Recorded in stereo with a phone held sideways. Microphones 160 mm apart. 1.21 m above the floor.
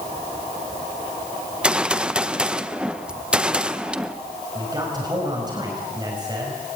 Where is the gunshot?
5° right (ahead or behind), 0.7 m.